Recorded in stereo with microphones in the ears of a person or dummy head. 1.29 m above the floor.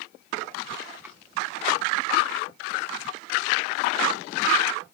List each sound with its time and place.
1.0 s a drawer: 10° right (ahead or behind)